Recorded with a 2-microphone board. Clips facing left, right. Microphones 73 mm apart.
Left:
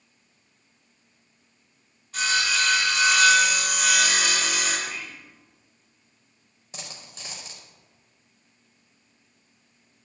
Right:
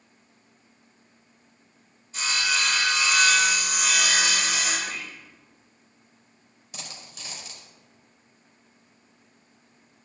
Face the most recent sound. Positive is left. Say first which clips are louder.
# even
turn(degrees=30)  # may be behind; listen again after turning